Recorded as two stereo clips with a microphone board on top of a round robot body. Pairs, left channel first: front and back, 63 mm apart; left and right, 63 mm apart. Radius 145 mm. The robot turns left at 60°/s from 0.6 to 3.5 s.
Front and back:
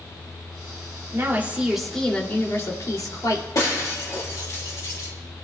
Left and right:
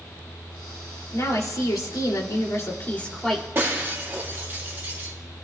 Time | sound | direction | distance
1.1 | a woman speaking | 135° left | 2.5 m
3.5 | breaking glass | 30° right | 3 m